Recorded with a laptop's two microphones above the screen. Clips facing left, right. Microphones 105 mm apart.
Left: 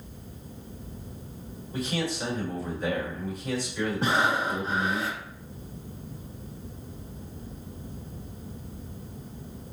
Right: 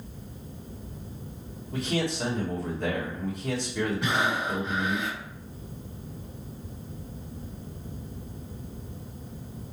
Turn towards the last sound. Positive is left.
turn(degrees=35)  # may be behind; listen again after turning